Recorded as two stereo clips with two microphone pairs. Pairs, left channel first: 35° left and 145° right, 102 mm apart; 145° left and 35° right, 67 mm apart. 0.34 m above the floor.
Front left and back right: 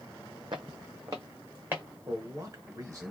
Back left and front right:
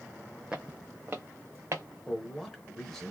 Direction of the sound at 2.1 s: 140° right.